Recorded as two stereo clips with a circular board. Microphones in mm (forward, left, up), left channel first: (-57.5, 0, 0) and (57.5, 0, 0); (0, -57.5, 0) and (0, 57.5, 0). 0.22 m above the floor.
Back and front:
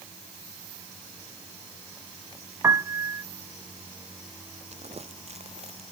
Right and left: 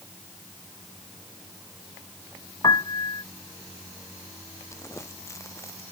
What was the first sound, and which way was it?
A piano, 55° right.